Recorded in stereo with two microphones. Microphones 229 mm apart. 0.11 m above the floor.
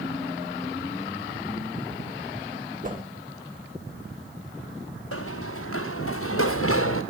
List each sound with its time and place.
2.8 s a whoosh: 40° right (ahead or behind), 2.5 m
5.1 s running footsteps: 85° left, 1.8 m; by 7.0 s 80° left, 3 m